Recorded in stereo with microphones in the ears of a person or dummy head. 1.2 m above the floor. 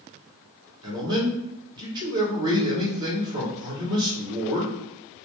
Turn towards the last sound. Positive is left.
turn(degrees=-25)  # may be behind; listen again after turning